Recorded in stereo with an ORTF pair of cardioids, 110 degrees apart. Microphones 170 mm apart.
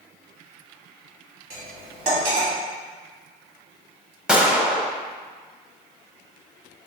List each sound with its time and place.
1.5 s cutlery clinking: 65° right, 1.4 m
4.3 s a gunshot: 5° right, 0.8 m